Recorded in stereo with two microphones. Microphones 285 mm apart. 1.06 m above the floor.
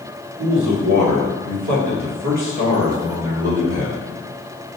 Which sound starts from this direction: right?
A man speaking, at 0.4 s.